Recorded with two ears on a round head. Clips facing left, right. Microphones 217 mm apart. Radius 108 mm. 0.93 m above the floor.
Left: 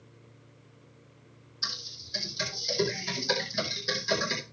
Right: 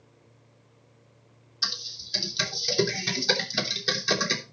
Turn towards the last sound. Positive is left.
turn(degrees=-75)  # may be behind; listen again after turning